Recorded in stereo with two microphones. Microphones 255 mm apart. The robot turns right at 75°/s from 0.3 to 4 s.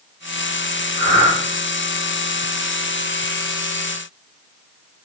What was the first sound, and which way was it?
Breathing, 40° left (ahead or behind).